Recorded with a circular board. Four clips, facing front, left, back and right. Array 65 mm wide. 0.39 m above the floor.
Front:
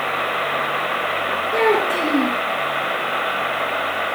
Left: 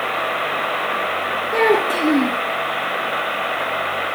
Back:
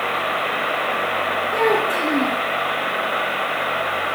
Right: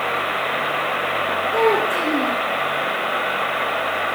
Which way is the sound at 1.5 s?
80° left.